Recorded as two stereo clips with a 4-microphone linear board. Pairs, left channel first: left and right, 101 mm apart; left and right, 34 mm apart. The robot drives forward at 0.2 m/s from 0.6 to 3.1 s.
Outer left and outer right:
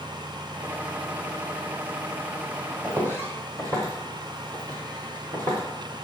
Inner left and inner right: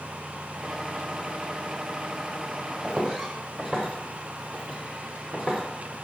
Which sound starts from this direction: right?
Footsteps, at 2.8 s.